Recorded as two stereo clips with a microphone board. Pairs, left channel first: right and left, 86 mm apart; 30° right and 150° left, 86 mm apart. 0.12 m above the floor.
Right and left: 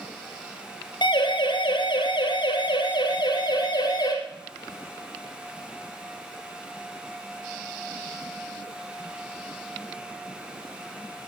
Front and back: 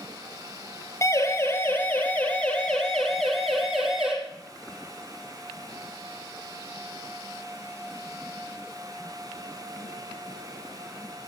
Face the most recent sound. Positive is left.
turn(degrees=-125)